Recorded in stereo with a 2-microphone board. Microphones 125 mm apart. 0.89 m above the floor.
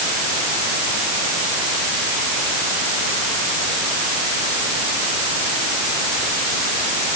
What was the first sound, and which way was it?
Only background noise.